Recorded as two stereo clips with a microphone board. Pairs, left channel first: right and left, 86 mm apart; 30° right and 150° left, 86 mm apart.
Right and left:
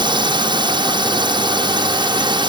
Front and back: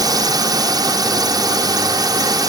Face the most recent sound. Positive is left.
turn(degrees=110)